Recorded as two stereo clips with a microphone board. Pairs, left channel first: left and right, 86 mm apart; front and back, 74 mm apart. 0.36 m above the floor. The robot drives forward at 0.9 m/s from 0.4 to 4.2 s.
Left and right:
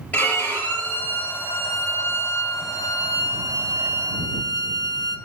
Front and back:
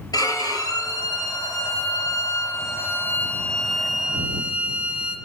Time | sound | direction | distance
0.1 | a violin | 20° left | 3.5 m